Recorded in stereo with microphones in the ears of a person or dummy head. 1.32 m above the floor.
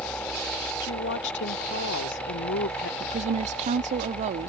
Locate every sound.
0.8 s a woman speaking: 65° left (ahead or behind)
3.0 s a woman speaking: 35° right (ahead or behind)